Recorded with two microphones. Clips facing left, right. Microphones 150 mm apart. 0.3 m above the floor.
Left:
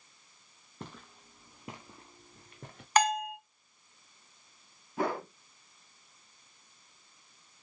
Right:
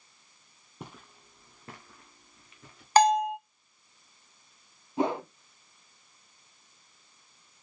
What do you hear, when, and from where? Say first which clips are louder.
0.8 s footsteps: even; 10° right (ahead or behind), 1.1 m; by 2.9 s 55° left (ahead or behind), 1.0 m
3.0 s a bell: right 6 dB; 35° right (ahead or behind), 0.6 m
5.0 s a whoosh: right 4 dB; 20° right (ahead or behind), 0.7 m